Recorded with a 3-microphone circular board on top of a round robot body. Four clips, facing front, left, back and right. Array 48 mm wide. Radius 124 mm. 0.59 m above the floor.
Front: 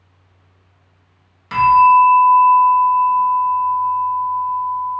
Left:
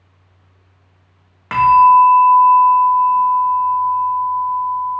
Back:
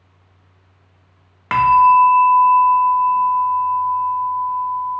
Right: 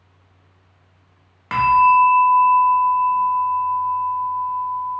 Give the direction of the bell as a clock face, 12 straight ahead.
6 o'clock.